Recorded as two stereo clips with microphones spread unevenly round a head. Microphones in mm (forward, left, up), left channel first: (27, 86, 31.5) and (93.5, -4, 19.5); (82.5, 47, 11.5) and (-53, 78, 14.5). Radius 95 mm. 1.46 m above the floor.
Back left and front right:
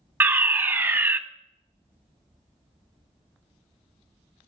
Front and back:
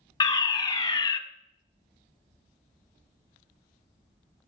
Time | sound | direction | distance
0.2 | a fire alarm | 15° right | 0.7 m